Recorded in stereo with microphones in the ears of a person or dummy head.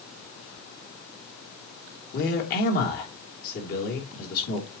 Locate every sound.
2.1 s a man speaking: 55° left (ahead or behind), 3 m